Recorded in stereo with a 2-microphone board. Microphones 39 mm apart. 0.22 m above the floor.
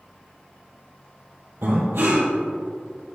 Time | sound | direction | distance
1.6 | breathing | 75° right (ahead or behind) | 2.5 m